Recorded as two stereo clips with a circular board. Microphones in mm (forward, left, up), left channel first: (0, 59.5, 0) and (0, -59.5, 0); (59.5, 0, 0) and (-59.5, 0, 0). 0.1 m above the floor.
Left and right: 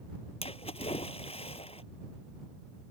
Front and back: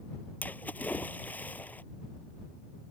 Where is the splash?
75° left.